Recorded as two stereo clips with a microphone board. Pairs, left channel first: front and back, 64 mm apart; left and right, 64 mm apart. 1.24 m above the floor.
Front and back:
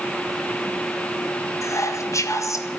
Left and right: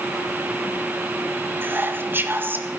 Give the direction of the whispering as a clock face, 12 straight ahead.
1 o'clock.